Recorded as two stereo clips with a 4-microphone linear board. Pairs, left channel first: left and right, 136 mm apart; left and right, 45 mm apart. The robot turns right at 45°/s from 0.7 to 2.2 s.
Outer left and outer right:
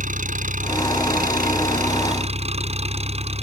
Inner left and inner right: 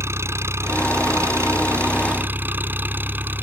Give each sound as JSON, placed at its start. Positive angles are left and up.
{"t": 0.0, "sound": "an engine running", "azimuth_deg": -115}